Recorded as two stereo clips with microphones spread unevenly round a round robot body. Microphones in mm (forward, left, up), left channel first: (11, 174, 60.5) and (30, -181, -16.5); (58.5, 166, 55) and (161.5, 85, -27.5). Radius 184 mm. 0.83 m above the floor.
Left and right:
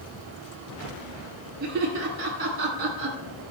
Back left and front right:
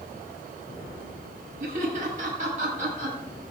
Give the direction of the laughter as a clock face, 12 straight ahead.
1 o'clock.